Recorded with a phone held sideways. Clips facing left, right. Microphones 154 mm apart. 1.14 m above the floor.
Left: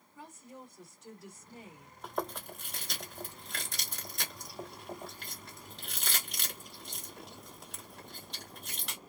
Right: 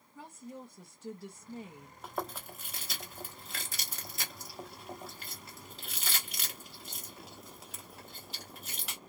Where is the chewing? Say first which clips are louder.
Left 2 dB; 5° right (ahead or behind), 1.1 m.